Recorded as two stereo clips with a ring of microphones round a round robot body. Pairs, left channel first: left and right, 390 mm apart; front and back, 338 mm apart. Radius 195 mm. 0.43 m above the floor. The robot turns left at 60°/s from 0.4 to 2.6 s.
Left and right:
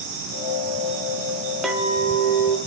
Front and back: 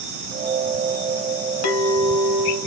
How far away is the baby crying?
I don't hear a baby crying.